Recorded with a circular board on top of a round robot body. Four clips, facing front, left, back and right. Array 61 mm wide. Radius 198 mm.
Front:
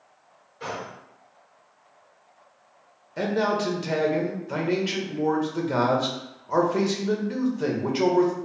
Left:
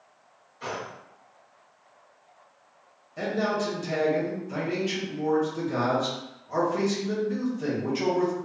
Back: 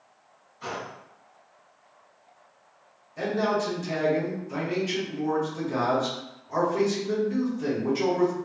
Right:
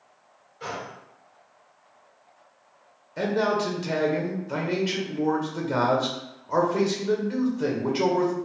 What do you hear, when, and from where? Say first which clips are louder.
0.6 s a gunshot: even, front 1 dB; 15° right, 1.9 m
3.2 s a man speaking: right 3 dB, front 2 dB; 35° right, 1.4 m